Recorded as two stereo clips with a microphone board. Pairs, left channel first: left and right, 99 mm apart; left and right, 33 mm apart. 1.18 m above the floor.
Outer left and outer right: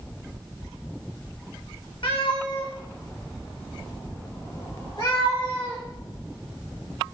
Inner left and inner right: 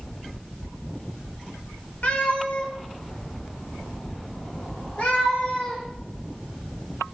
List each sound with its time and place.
2.0 s a cat meowing: 65° left (ahead or behind), 1.1 m; by 5.8 s 55° left (ahead or behind), 3 m